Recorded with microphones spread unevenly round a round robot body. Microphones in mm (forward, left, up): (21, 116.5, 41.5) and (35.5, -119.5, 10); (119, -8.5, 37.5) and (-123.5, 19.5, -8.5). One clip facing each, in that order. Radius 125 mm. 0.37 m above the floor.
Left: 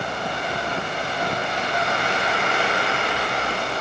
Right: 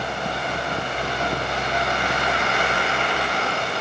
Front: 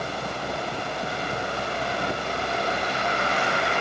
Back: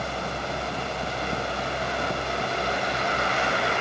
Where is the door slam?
I don't hear a door slam.